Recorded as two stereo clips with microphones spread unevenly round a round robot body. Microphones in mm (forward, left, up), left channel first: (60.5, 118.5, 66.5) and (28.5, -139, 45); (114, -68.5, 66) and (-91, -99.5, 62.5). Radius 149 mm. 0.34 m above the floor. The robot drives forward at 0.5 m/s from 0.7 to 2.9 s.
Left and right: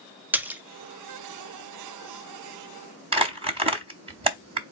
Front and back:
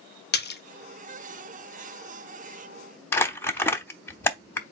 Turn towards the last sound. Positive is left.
turn(degrees=-65)